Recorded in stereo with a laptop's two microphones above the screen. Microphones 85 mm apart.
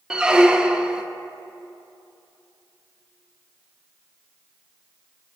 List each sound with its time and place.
0.1 s a squeak: 10° right (ahead or behind), 0.5 m